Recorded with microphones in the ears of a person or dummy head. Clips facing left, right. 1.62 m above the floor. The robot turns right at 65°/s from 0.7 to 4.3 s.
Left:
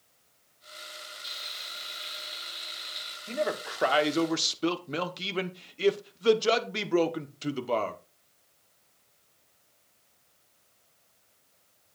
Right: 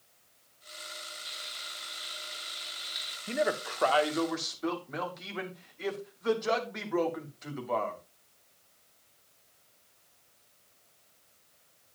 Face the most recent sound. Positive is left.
turn(degrees=45)